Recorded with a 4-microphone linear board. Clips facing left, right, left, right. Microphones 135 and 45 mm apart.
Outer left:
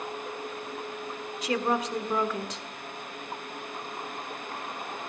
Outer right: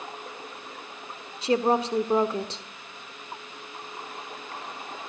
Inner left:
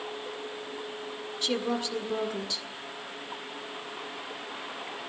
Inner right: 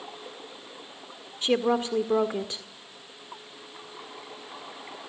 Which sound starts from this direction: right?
A woman speaking, at 1.4 s.